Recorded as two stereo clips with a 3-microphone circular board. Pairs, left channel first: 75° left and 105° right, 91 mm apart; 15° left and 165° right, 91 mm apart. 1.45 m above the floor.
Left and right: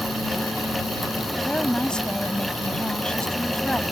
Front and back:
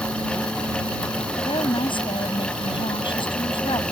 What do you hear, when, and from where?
1.4 s a woman speaking: 5° right